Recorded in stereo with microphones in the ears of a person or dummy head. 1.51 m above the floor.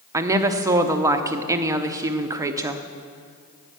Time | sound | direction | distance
0.1 | a woman speaking | 15° right (ahead or behind) | 0.6 m